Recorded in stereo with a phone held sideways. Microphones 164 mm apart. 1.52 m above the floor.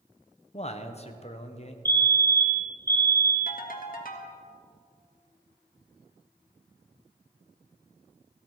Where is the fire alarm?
15° left (ahead or behind), 1.1 m.